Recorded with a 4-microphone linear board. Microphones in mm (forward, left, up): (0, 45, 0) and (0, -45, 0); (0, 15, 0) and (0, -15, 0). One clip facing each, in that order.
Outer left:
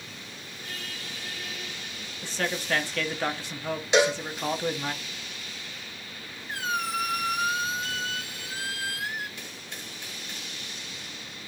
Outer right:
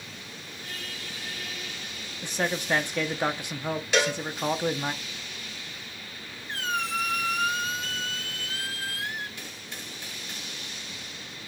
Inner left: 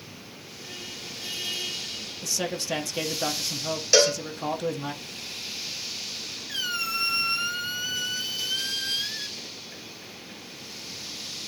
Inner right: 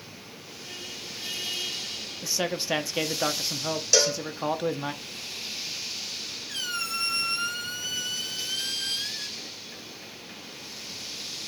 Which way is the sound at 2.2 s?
20° right (ahead or behind).